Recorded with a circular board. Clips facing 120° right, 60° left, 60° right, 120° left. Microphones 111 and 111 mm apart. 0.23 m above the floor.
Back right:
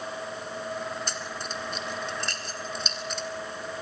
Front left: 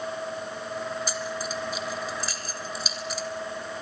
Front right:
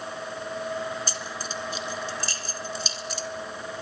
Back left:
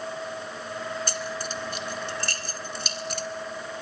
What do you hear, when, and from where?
1.1 s keys jangling: 145° left, 1.7 m